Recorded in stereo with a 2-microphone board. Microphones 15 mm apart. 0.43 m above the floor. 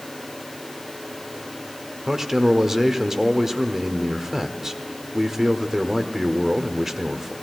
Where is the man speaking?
25° right (ahead or behind), 1.0 m.